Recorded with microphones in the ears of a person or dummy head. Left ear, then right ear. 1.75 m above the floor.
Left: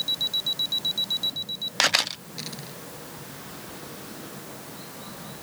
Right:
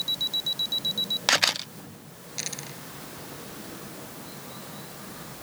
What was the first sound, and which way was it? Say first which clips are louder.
A dropped coin: right 7 dB; 20° right (ahead or behind).